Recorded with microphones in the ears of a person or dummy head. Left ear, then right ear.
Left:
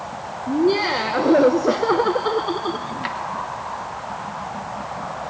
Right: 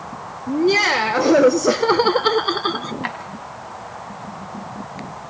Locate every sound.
0.5 s laughter: 60° right (ahead or behind), 1.7 m; by 2.9 s 40° right (ahead or behind), 0.7 m
3.0 s a drawer: 20° right (ahead or behind), 3 m